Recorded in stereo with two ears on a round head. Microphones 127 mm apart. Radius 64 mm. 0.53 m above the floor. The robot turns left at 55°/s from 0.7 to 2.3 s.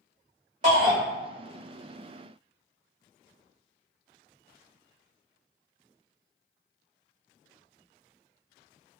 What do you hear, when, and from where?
0.6 s a shout: 55° right (ahead or behind), 1.6 m; by 1.0 s 60° right (ahead or behind), 1.6 m